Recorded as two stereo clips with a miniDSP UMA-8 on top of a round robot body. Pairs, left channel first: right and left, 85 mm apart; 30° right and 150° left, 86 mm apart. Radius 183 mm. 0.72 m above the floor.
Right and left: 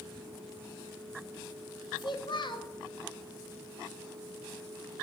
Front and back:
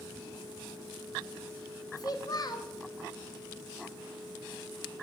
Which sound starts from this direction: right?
A child speaking, at 2.0 s.